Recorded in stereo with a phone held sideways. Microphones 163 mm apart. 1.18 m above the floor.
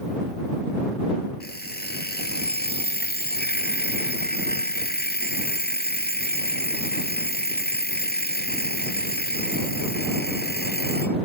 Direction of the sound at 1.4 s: 85° left.